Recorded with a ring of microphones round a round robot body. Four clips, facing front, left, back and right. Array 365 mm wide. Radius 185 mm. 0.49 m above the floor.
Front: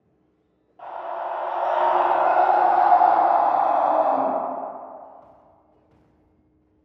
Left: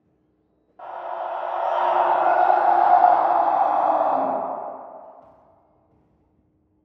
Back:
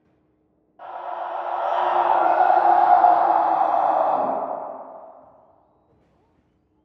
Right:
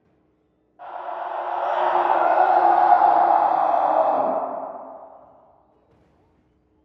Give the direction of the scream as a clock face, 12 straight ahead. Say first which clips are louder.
Left 1 dB, even; 10 o'clock.